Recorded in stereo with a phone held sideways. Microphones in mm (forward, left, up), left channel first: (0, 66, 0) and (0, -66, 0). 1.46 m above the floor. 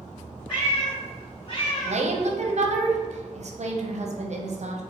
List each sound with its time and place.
0.5 s a cat meowing: 35° left (ahead or behind), 1.3 m; by 2.1 s 25° left (ahead or behind), 1.4 m
1.9 s a woman speaking: 55° right (ahead or behind), 0.6 m